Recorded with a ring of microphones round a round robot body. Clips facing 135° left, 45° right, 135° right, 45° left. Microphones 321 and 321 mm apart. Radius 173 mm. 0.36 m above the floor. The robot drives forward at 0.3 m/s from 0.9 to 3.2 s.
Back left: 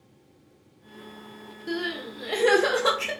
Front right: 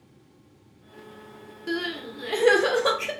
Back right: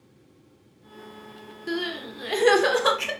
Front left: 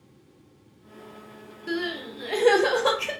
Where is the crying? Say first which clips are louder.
Front right 1 dB, even; 75° right, 0.6 m; by 3.1 s 150° right, 0.7 m.